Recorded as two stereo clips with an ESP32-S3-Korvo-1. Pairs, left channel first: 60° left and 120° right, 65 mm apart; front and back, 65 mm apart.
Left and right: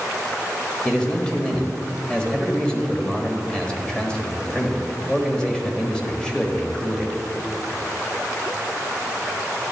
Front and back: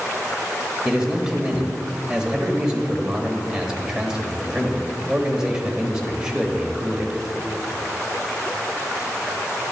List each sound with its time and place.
0.8 s a man speaking: 120° left, 1.2 m